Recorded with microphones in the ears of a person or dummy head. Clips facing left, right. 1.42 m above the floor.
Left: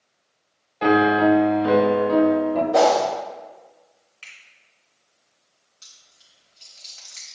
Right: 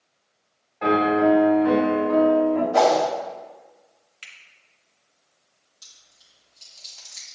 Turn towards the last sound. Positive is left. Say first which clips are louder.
# left 1 dB
turn(degrees=30)  # may be behind; listen again after turning